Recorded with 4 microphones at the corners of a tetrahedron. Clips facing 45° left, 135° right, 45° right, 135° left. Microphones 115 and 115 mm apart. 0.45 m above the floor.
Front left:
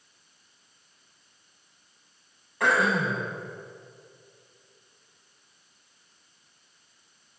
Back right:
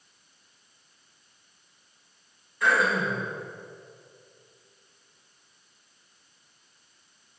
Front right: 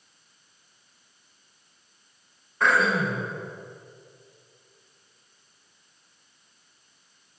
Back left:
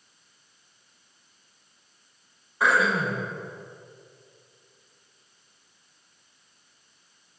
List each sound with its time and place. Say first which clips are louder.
2.6 s throat clearing: front left 1 dB, even; 55° left, 4 m